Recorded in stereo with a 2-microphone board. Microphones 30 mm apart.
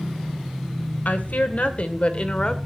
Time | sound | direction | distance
1.1 | a woman speaking | 65° left (ahead or behind) | 2 m